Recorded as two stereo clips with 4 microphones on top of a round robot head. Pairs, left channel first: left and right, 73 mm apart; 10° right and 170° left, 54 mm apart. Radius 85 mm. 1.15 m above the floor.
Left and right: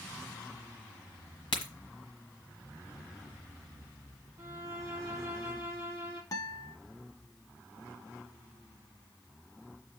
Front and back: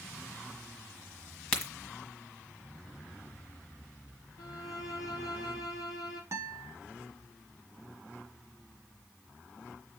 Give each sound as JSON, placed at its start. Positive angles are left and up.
{"t": 1.5, "sound": "a crack", "azimuth_deg": 55, "distance_m": 1.4}
{"t": 4.4, "sound": "a violin", "azimuth_deg": -25, "distance_m": 1.8}
{"t": 6.3, "sound": "a guitar", "azimuth_deg": 130, "distance_m": 0.9}